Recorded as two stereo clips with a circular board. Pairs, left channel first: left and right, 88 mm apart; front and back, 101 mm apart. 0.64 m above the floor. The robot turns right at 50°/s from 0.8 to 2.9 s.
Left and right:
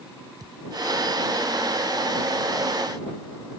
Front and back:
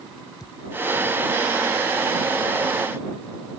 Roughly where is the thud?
Ahead right.